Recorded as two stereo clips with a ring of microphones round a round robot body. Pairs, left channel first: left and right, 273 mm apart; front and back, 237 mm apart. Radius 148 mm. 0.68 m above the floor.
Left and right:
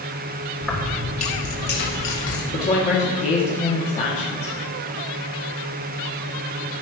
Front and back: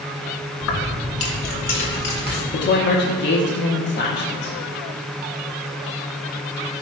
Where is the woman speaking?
30° left, 1.3 m.